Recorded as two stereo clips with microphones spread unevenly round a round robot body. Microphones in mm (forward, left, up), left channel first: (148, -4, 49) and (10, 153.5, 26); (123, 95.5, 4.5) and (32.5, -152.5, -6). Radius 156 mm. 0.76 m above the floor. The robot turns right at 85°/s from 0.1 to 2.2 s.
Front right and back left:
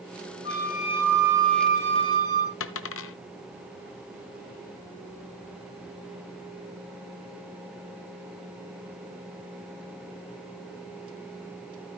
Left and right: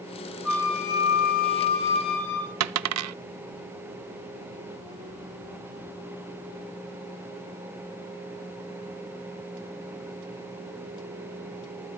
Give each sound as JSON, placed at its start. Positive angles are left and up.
{"t": 0.5, "sound": "a flute", "azimuth_deg": -25, "distance_m": 5.5}
{"t": 2.6, "sound": "a dropped coin", "azimuth_deg": -85, "distance_m": 0.6}